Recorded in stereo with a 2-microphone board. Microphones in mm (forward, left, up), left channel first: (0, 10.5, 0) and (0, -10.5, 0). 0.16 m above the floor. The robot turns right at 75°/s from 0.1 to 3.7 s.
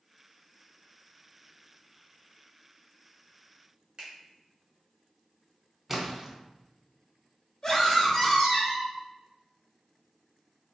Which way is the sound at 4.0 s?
40° right (ahead or behind).